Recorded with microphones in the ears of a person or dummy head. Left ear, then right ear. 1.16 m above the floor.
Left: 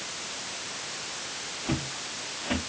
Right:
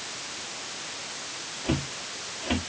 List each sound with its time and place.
1.6 s footsteps: 10° right (ahead or behind), 5 m